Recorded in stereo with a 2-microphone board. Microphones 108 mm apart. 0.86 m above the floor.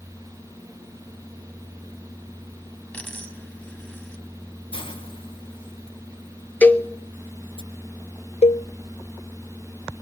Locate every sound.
2.9 s a dropped coin: 15° left (ahead or behind), 4 m
4.7 s a hiss: 55° left (ahead or behind), 3 m
6.6 s a cowbell: 15° left (ahead or behind), 1.0 m
8.4 s a cowbell: 85° left, 0.5 m